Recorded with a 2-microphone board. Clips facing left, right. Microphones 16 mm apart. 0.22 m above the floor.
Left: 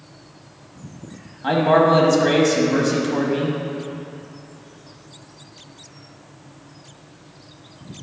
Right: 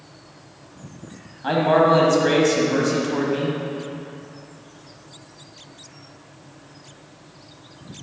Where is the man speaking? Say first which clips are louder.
Left 1 dB; 5° left (ahead or behind), 0.9 m.